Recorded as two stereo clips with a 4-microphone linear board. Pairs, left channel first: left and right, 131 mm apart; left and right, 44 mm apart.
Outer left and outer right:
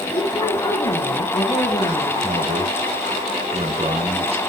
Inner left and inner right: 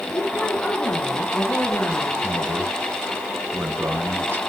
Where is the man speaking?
50° right (ahead or behind), 4 m.